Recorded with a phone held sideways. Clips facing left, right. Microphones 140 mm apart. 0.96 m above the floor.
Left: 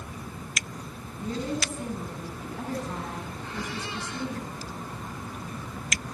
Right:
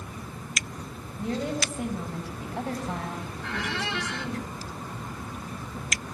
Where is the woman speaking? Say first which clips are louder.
Right 2 dB; 75° right (ahead or behind), 10 m.